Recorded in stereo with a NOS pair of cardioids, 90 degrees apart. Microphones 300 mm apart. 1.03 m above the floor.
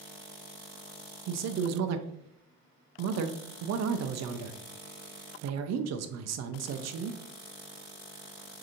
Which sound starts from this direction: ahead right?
A man speaking, at 1.3 s.